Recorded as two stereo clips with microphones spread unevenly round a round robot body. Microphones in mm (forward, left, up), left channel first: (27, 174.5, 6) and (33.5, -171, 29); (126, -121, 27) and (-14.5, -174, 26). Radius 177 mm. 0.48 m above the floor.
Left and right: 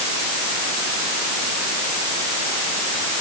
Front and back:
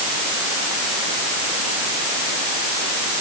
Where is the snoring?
No snoring in this recording.